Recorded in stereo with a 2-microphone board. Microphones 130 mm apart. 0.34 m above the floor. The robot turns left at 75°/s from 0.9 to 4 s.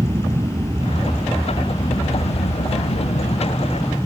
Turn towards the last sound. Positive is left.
turn(degrees=-10)